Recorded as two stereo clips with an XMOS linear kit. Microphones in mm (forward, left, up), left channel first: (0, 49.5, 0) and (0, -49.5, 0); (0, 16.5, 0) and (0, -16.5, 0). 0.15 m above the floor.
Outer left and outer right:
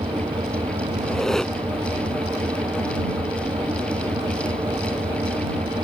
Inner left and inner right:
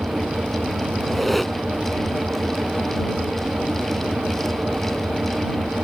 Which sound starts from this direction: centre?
A squeak, at 1.0 s.